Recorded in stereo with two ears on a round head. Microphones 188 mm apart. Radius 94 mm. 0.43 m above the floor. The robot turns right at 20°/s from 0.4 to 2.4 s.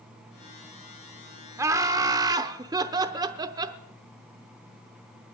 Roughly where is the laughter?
Centre.